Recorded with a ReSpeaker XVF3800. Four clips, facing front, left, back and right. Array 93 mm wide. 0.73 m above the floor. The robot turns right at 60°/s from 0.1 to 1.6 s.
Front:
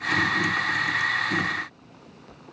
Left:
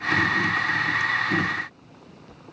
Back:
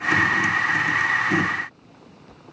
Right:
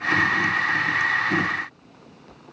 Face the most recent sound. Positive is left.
No sound to turn to.